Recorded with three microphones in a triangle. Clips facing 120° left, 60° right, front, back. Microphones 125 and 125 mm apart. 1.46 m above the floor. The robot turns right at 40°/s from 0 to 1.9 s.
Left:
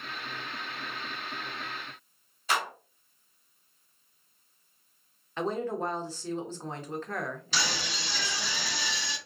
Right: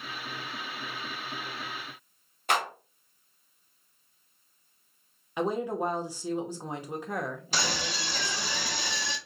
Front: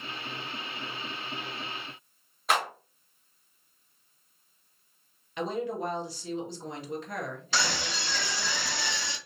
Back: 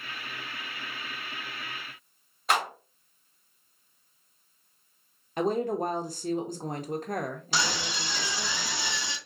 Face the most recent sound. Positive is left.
turn(degrees=-105)